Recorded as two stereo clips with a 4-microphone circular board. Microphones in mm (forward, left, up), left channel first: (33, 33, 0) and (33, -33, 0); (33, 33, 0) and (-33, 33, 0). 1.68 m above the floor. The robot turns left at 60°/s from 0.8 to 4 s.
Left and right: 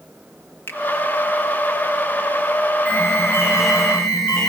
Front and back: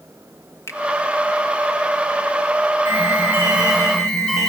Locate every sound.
0.7 s a finger snap: 40° left, 2 m
2.9 s an alarm: 125° right, 10 m; by 4.5 s 165° left, 10 m